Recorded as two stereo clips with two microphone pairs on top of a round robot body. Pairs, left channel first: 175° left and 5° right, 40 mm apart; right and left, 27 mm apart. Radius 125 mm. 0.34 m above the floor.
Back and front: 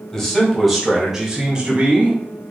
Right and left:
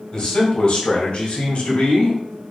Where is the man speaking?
130° right, 1.9 m; by 2.2 s 60° right, 2 m.